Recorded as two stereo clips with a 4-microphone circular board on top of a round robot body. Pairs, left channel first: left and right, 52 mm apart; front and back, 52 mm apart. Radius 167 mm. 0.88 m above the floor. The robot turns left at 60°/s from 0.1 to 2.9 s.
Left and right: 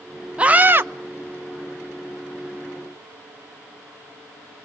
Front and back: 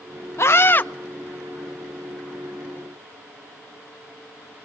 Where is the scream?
20° right, 1.0 m; by 0.9 s 50° right, 1.0 m.